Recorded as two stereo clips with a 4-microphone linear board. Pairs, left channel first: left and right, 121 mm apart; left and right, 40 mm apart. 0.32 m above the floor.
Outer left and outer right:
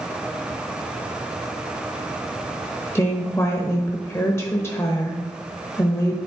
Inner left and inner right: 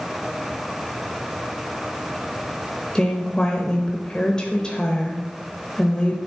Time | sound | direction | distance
3.0 | a woman speaking | 20° left (ahead or behind) | 0.9 m